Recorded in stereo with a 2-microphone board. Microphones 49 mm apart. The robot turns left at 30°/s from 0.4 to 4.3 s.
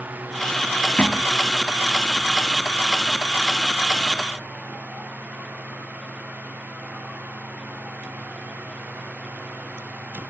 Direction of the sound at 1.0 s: 35° left (ahead or behind).